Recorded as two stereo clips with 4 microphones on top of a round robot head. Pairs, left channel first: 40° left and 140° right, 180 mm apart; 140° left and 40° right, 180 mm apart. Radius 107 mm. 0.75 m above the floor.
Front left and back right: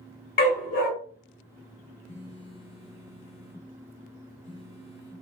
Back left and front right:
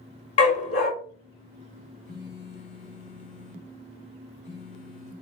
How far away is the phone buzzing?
About 1.9 m.